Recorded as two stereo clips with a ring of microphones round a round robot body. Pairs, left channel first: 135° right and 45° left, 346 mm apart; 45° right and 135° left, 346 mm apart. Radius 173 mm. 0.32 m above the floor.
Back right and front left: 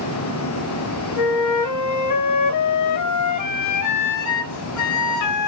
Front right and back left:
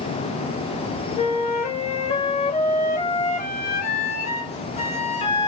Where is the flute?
110° right, 0.6 m.